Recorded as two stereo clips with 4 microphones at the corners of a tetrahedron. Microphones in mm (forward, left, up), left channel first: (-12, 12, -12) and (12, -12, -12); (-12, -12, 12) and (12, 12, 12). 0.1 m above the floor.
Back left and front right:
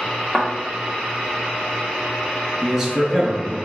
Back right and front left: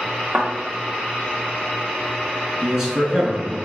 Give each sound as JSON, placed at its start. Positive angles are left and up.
{"t": 0.3, "sound": "a thud", "azimuth_deg": 35, "distance_m": 1.6}
{"t": 2.6, "sound": "a man speaking", "azimuth_deg": 10, "distance_m": 1.2}